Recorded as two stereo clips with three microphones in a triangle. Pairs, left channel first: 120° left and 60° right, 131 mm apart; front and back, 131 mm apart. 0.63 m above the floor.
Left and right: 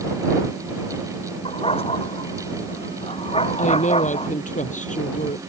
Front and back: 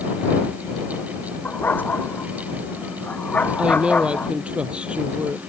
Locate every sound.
1.4 s a dog barking: 75° left; by 4.3 s 80° left
3.6 s a woman speaking: 100° left